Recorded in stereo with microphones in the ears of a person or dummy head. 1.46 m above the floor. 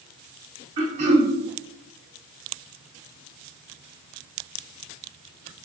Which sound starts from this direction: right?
Throat clearing, at 0.8 s.